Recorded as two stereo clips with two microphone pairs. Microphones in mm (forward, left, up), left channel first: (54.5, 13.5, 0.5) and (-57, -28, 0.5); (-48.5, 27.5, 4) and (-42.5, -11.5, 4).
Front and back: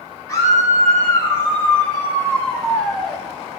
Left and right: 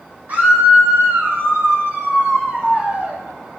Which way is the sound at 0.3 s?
40° right.